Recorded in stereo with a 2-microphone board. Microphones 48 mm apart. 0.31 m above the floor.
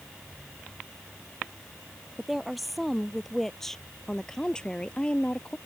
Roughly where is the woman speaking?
Centre.